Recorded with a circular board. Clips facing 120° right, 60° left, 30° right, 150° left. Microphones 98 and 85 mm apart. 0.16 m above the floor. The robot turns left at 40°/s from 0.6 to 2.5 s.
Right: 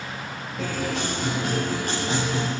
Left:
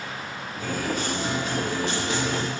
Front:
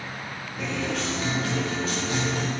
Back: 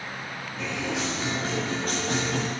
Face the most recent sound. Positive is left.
turn(degrees=170)